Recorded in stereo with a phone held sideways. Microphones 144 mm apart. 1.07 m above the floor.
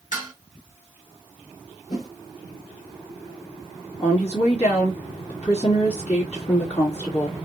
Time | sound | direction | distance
0.1 | dishes clattering | 65° left (ahead or behind) | 3 m
1.9 | a whoosh | 55° left (ahead or behind) | 2.5 m
4.0 | a woman speaking | 50° left (ahead or behind) | 1.9 m